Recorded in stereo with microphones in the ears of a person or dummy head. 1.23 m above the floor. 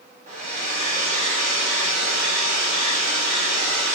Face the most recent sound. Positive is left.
turn(degrees=-35)  # may be behind; listen again after turning